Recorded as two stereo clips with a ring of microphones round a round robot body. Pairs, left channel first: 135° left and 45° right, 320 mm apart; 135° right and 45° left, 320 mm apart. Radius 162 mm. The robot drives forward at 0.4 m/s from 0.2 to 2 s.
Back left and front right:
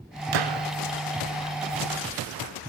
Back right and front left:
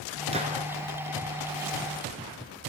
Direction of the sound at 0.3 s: 25° right.